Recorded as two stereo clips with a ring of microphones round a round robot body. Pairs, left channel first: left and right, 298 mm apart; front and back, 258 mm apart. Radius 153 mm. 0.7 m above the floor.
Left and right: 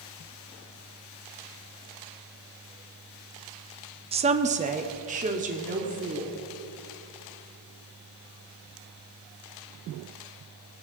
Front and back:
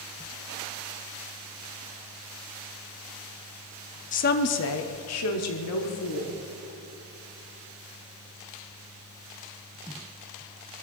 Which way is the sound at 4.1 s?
35° right.